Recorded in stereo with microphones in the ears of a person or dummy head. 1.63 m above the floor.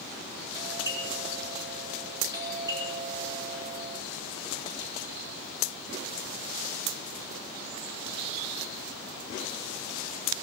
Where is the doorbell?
25° right (ahead or behind), 10 m.